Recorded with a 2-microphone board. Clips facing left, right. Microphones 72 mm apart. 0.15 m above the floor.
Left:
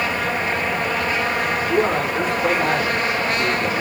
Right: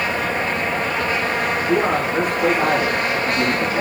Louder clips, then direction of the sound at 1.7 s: Right 1 dB; 70° right (ahead or behind).